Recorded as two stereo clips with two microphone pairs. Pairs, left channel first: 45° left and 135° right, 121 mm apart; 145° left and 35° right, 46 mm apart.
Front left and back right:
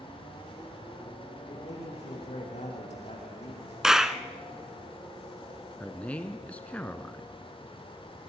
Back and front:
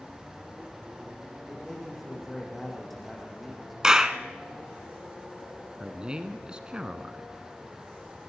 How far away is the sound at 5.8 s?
About 1.1 m.